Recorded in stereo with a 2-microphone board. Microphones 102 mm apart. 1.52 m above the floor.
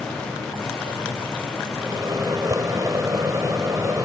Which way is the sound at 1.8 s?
35° right (ahead or behind).